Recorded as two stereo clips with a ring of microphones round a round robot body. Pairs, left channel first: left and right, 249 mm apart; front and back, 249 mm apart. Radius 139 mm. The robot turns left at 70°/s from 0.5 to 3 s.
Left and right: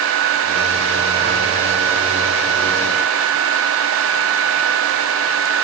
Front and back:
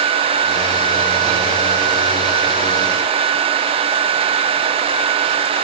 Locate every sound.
Only background noise.